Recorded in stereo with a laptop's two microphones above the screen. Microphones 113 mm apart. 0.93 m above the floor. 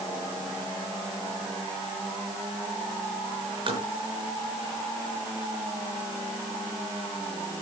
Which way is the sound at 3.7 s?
50° right (ahead or behind).